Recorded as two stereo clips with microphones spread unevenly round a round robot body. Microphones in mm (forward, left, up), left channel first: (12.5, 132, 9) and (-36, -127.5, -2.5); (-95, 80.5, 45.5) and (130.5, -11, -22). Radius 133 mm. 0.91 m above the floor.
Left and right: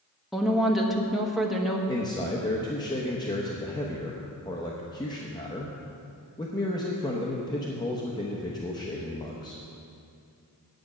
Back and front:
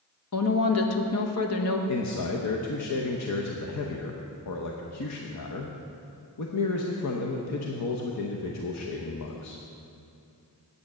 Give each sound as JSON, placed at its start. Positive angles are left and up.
{"t": 0.3, "sound": "a woman speaking", "azimuth_deg": 175, "distance_m": 1.2}
{"t": 1.9, "sound": "a man speaking", "azimuth_deg": 155, "distance_m": 0.9}